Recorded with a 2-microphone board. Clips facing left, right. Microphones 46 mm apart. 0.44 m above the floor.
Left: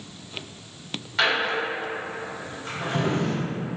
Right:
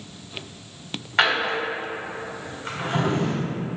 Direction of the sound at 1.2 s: 45° right (ahead or behind).